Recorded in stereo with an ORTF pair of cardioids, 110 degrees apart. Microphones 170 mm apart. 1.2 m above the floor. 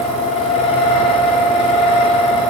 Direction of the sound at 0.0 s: 35° left.